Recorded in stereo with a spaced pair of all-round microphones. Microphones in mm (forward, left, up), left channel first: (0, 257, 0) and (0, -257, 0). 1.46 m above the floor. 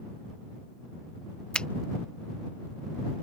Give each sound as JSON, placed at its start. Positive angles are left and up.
{"t": 1.5, "sound": "a finger snap", "side_deg": 0}